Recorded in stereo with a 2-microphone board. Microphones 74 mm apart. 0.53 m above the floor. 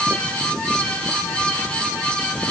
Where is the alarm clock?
I don't hear an alarm clock.